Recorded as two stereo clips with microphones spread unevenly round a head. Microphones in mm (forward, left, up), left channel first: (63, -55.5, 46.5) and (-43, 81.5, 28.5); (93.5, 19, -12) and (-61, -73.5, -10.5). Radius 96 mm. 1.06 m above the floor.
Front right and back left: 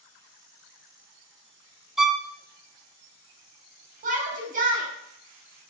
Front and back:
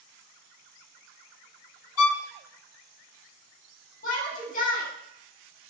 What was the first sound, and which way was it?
A violin, 40° left.